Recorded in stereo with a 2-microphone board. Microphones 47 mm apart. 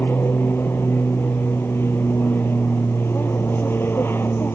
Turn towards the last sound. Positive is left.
turn(degrees=50)  # may be behind; listen again after turning